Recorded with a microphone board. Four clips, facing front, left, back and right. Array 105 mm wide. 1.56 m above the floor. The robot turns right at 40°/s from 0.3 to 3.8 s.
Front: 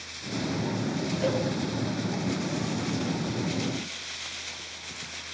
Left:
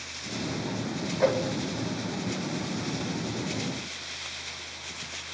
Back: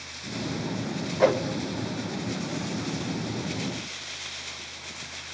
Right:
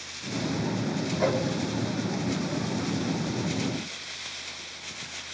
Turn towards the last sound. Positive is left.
turn(degrees=-80)